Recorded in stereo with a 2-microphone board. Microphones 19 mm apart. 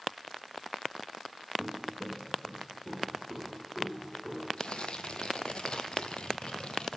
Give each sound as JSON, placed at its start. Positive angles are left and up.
{"t": 1.6, "sound": "footsteps", "side_deg": -50, "distance_m": 1.5}
{"t": 4.6, "sound": "tearing paper", "side_deg": 60, "distance_m": 0.9}